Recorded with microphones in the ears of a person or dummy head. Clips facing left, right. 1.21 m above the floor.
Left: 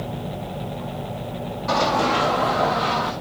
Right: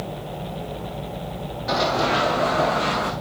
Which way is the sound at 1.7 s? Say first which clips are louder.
Left 1 dB; 20° right (ahead or behind).